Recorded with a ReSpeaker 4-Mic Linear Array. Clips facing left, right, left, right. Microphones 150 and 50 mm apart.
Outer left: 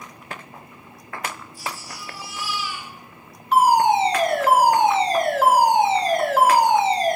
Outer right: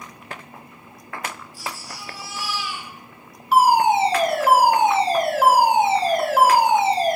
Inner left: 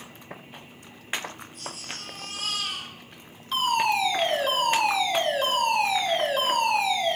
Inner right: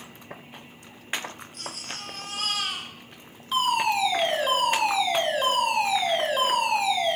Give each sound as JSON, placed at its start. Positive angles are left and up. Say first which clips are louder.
{"t": 1.5, "sound": "a baby crying", "louder": "outer left 1 dB, inner right 1 dB", "side_deg": -90, "distance_m": 9.5}
{"t": 3.5, "sound": "a fire alarm", "louder": "even, even", "side_deg": -5, "distance_m": 5.5}